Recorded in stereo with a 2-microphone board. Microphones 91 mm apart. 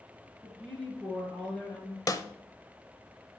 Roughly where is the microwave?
No microwave in this recording.